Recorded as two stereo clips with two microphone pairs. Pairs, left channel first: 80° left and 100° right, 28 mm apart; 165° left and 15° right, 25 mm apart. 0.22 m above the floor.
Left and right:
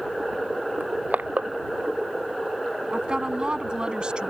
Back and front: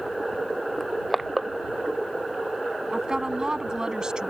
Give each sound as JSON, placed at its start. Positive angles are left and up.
{"t": 0.8, "sound": "crushing", "azimuth_deg": -105}
{"t": 2.9, "sound": "a woman speaking", "azimuth_deg": -65}